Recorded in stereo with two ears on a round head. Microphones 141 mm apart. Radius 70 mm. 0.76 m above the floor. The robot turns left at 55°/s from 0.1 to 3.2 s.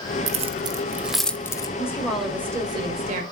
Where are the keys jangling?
50° right (ahead or behind), 1.1 m; by 1.7 s 25° left (ahead or behind), 1.1 m.